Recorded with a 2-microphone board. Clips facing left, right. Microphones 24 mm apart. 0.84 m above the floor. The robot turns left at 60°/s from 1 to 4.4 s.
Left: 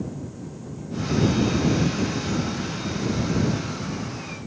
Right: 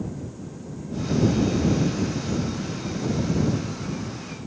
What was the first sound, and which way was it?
Only background noise.